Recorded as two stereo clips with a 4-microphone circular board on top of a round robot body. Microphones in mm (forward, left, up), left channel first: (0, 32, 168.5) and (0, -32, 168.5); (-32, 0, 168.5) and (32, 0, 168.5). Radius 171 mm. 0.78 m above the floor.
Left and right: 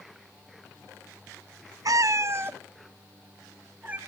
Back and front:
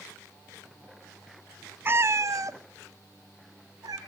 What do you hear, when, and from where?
1.9 s a cat meowing: 60° right, 0.5 m; by 4.0 s 25° right, 2.0 m